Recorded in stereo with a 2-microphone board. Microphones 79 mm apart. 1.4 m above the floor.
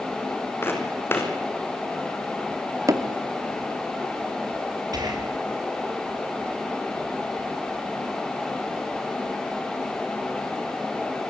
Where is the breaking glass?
I don't hear breaking glass.